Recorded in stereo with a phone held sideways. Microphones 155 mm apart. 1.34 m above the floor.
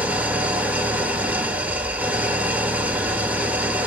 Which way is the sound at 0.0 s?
10° right (ahead or behind).